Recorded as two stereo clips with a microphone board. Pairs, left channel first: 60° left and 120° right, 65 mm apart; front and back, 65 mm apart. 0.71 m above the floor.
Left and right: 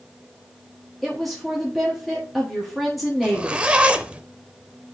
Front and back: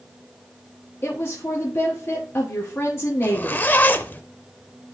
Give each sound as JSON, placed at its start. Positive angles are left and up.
{"t": 1.0, "sound": "a woman speaking", "azimuth_deg": -30, "distance_m": 1.3}
{"t": 3.2, "sound": "a zipper", "azimuth_deg": -55, "distance_m": 0.6}